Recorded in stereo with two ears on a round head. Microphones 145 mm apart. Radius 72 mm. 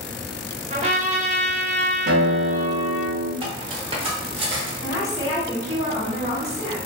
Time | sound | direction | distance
0.7 | a trumpet | 45° right (ahead or behind) | 0.7 m
2.1 | a guitar | 50° right (ahead or behind) | 0.6 m
3.4 | cutlery clinking | 35° right (ahead or behind) | 0.7 m
4.8 | a woman speaking | 45° left (ahead or behind) | 1.6 m